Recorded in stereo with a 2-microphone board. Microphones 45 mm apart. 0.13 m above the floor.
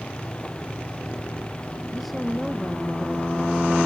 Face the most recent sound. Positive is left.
turn(degrees=0)  # may be behind; listen again after turning